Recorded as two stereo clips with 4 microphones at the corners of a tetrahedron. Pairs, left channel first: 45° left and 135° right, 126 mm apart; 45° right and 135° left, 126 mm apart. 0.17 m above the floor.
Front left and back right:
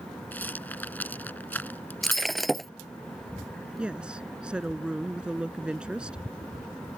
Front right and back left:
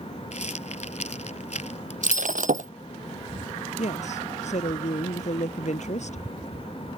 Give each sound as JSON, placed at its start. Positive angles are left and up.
{"t": 0.3, "sound": "a rattle", "azimuth_deg": -30}
{"t": 2.0, "sound": "breaking glass", "azimuth_deg": 135}
{"t": 3.8, "sound": "a woman speaking", "azimuth_deg": -55}